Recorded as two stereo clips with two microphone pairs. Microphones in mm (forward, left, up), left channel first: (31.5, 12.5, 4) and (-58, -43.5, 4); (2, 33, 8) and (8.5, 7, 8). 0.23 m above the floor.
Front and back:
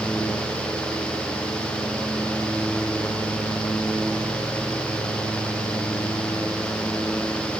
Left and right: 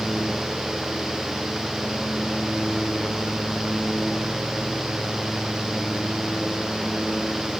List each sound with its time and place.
Only background noise.